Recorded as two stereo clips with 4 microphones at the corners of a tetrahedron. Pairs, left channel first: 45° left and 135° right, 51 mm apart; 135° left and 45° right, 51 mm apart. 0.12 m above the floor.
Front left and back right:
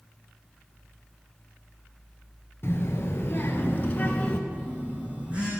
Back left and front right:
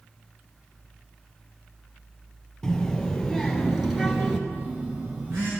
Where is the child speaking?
55° left, 1.7 m; by 4.4 s 10° left, 1.3 m.